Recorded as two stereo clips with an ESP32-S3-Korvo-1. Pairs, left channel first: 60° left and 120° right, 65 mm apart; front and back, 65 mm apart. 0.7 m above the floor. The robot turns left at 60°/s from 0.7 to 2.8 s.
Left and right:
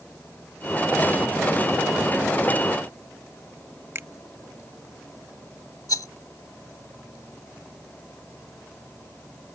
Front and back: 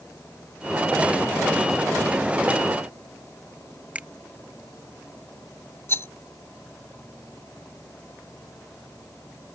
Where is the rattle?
45° left.